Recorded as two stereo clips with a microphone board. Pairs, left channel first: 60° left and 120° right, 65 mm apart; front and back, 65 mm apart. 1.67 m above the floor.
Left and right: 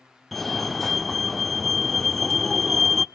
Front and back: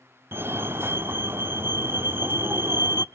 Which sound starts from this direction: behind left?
A fire alarm, at 0.3 s.